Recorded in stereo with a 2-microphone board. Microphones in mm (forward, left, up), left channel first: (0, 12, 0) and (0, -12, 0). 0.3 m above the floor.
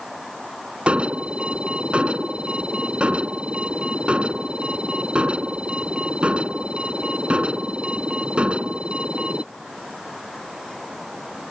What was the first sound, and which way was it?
An alarm, 55° right (ahead or behind).